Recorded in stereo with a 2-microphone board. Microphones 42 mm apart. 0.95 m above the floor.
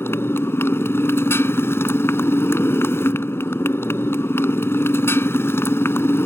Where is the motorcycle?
85° left.